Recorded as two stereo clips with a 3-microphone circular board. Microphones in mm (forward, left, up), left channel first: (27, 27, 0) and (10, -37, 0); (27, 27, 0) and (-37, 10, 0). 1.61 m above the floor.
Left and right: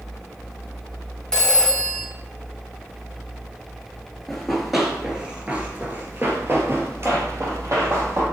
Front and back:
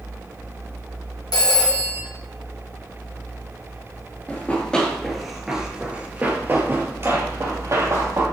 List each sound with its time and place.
1.3 s a phone ringing: 5° right, 1.5 m
4.3 s running footsteps: straight ahead, 1.7 m; by 8.2 s 140° right, 3 m